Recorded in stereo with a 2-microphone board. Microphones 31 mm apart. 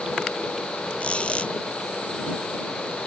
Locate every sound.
1.0 s a squeak: 40° left (ahead or behind)